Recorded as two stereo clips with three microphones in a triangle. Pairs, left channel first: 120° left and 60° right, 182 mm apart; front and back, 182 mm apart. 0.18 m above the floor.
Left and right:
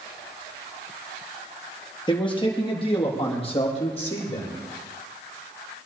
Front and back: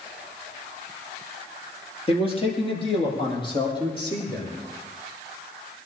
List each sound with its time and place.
2.1 s a man speaking: 55° left, 4 m; by 4.6 s 65° left, 7 m